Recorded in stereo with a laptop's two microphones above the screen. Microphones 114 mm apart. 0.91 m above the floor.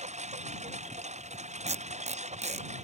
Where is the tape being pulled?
80° right.